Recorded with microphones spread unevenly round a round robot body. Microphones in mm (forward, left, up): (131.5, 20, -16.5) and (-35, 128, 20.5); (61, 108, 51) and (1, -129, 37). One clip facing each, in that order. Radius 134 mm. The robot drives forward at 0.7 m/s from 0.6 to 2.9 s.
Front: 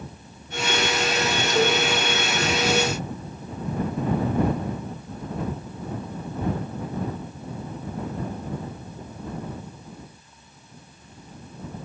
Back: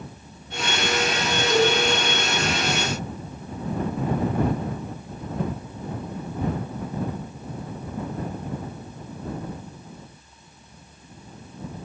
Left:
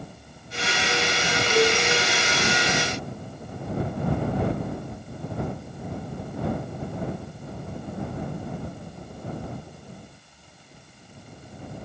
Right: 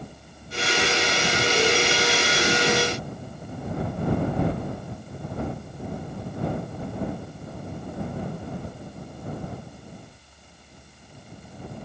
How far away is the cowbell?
About 5 m.